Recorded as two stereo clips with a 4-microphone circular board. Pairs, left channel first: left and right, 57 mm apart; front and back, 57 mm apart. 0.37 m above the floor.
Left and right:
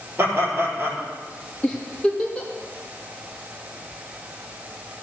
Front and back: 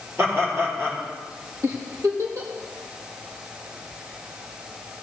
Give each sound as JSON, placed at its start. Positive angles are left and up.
{"t": 0.2, "sound": "laughter", "azimuth_deg": -135, "distance_m": 7.0}
{"t": 1.6, "sound": "a giggle", "azimuth_deg": 165, "distance_m": 4.0}